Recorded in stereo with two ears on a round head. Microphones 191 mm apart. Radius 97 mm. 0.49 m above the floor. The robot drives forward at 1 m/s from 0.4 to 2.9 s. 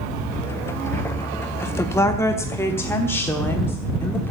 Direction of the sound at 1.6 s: 10° left (ahead or behind).